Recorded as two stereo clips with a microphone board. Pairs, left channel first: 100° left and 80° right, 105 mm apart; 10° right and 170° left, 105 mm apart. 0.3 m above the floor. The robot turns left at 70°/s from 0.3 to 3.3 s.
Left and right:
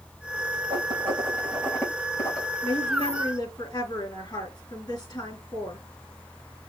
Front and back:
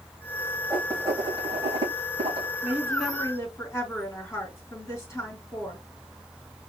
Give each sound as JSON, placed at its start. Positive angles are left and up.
{"t": 0.7, "sound": "writing", "azimuth_deg": -105, "distance_m": 4.5}
{"t": 2.6, "sound": "a woman speaking", "azimuth_deg": 100, "distance_m": 3.0}